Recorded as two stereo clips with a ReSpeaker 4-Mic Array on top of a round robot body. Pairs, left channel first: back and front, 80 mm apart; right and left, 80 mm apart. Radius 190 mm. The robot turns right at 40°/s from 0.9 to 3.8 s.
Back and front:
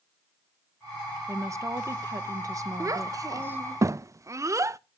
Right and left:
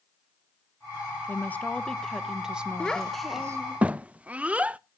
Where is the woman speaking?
35° right, 1.2 m; by 3.6 s 55° left, 1.2 m.